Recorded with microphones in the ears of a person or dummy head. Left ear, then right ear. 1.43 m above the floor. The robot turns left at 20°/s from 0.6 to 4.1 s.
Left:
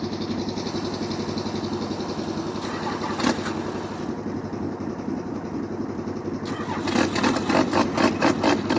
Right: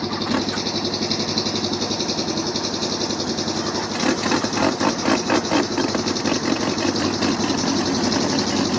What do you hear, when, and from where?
0.0 s an engine running: 25° right; by 8.8 s 95° right